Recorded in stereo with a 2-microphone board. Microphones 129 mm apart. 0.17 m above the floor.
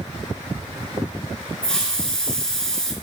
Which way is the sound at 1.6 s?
5° left (ahead or behind).